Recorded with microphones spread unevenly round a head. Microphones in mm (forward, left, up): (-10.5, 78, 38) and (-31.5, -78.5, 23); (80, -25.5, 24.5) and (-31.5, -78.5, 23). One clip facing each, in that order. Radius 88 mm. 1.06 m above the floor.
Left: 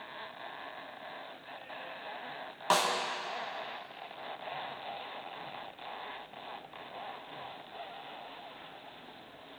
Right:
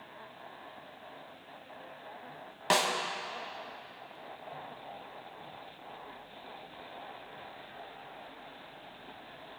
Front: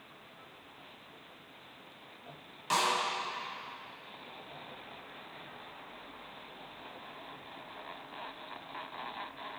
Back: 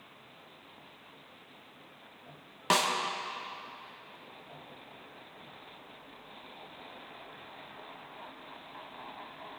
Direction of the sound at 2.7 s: 165° right.